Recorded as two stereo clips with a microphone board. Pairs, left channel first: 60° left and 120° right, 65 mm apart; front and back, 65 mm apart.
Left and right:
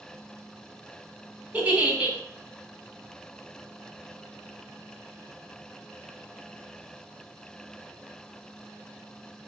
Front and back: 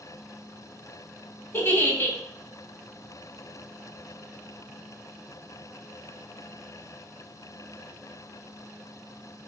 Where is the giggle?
55° right, 0.5 m.